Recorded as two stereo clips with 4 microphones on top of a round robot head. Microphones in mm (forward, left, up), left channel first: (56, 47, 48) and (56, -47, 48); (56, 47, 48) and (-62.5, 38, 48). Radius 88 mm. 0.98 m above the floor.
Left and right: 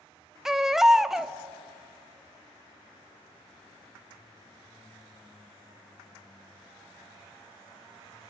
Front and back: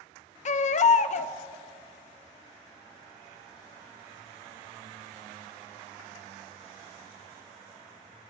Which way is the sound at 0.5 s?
5° right.